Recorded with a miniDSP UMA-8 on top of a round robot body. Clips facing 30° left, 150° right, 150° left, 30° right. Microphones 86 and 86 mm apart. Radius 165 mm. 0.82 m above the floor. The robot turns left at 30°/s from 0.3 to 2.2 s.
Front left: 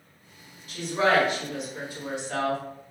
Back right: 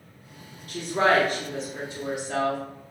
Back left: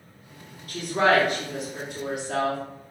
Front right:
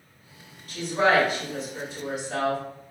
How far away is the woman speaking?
About 1.8 m.